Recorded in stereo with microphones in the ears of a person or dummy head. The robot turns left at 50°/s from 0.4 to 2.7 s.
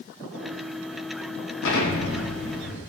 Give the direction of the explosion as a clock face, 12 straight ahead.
9 o'clock.